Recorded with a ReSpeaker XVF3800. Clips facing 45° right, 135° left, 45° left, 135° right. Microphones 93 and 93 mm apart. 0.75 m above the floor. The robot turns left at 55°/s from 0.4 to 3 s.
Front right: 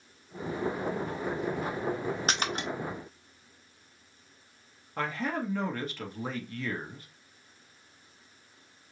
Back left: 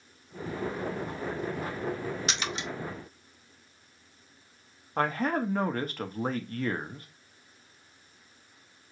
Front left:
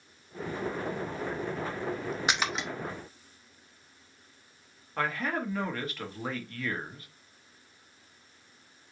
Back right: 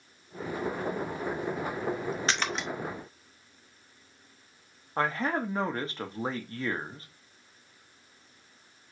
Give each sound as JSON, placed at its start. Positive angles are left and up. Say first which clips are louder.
{"t": 2.3, "sound": "a splash", "louder": "front right 3 dB, front left 3 dB", "azimuth_deg": -25, "distance_m": 0.7}
{"t": 5.0, "sound": "a man speaking", "louder": "back left 4 dB, back right 3 dB", "azimuth_deg": 170, "distance_m": 0.8}